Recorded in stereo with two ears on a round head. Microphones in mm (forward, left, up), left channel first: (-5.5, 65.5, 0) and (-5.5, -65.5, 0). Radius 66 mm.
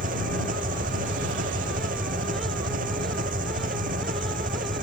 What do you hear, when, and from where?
0.0 s an engine running: 60° right (ahead or behind)